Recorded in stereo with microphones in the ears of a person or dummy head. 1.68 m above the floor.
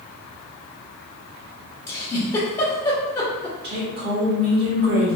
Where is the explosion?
No explosion in this recording.